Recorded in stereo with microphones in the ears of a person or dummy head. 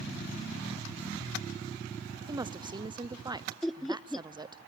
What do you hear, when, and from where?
2.3 s a woman speaking: 20° right (ahead or behind), 0.8 m
3.6 s laughter: centre (ahead or behind), 0.5 m